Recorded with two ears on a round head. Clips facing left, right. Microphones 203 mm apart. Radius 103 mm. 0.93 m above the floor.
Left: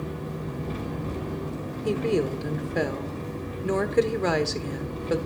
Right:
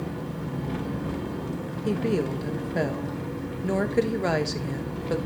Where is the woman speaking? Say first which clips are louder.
Left 1 dB; centre (ahead or behind), 1.1 m.